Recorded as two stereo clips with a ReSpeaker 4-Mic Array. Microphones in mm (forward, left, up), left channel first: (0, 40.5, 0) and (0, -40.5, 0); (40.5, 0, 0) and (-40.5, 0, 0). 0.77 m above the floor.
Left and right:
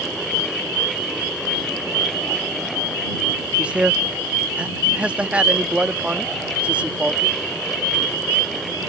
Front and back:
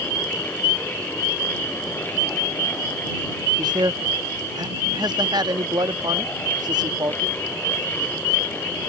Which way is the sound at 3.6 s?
165° right.